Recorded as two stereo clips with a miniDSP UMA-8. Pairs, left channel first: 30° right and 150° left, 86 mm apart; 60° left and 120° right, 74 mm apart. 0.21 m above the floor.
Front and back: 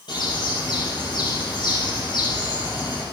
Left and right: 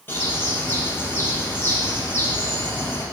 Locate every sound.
0.1 s a bird: straight ahead, 4 m